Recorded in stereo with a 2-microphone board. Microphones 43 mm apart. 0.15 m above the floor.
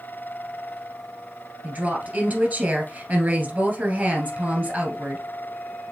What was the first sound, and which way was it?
A woman speaking, 45° right (ahead or behind).